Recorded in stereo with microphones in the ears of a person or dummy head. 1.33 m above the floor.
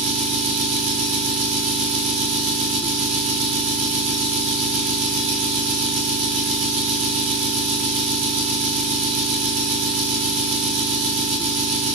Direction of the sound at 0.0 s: 35° right (ahead or behind).